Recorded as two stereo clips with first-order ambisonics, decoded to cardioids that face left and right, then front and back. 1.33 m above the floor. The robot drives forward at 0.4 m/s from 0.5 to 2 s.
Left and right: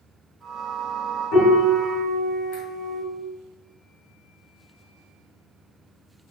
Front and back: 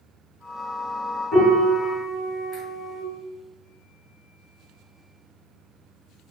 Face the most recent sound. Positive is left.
turn(degrees=100)